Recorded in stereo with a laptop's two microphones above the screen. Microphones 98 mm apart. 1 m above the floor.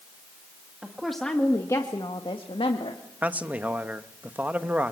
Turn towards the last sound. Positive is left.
turn(degrees=-15)  # may be behind; listen again after turning